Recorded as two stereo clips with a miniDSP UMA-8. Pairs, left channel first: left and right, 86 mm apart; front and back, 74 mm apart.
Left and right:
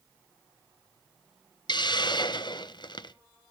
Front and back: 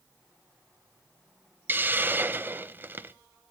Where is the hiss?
120° left, 0.5 m.